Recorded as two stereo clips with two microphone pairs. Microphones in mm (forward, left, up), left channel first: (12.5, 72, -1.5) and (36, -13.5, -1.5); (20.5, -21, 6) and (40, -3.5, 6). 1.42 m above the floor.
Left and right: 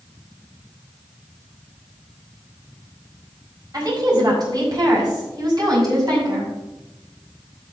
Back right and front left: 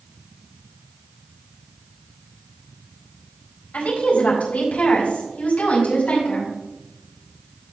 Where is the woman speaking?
115° right, 5 m.